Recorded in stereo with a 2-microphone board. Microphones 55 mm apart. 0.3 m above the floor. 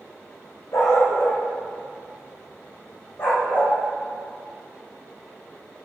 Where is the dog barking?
65° left (ahead or behind), 3.5 m; by 3.8 s 40° left (ahead or behind), 4 m.